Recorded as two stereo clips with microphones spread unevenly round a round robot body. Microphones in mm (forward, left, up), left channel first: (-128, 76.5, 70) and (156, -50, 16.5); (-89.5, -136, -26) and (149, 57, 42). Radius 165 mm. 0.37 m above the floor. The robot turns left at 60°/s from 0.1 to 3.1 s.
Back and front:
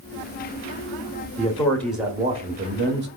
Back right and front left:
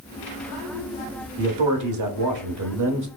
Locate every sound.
1.4 s a man speaking: 85° left, 1.1 m; by 3.1 s 15° right, 1.1 m